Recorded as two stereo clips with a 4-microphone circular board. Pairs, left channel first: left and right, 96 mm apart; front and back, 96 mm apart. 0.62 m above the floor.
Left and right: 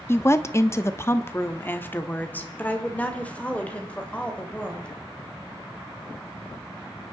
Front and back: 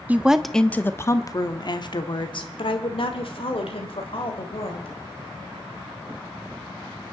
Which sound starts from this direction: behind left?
A woman speaking, at 0.1 s.